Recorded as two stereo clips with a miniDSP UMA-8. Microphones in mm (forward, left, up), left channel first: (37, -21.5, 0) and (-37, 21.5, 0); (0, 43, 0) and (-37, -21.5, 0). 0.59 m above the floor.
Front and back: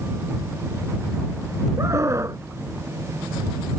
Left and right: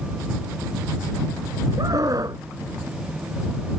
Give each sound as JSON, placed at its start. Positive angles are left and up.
{"t": 1.8, "sound": "a scream", "azimuth_deg": -155}